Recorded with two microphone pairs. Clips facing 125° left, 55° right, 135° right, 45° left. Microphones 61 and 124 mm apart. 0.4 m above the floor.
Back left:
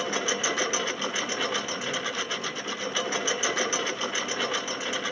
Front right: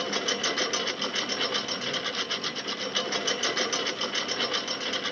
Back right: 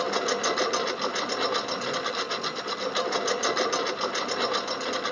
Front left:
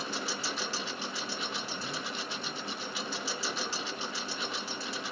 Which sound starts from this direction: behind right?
A lawn mower, at 0.0 s.